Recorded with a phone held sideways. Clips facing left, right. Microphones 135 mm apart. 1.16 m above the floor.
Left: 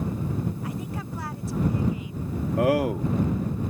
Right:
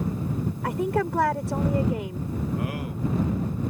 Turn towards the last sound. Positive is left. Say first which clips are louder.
# left 8 dB
turn(degrees=80)